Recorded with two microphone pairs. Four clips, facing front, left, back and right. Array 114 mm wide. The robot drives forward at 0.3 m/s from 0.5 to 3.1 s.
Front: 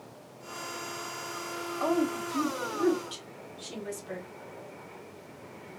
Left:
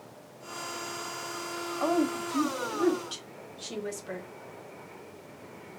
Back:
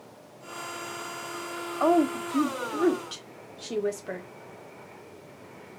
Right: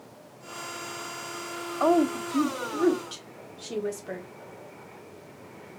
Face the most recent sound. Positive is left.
turn(degrees=-145)